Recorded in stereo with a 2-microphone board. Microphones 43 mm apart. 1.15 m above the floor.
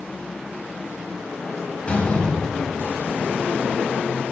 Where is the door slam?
25° left (ahead or behind), 5 m.